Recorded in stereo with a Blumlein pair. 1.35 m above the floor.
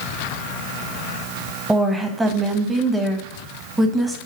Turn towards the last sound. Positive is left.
turn(degrees=-10)